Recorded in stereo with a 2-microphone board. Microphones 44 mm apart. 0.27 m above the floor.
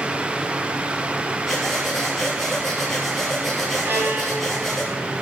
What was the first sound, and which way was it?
Breathing, 5° left (ahead or behind).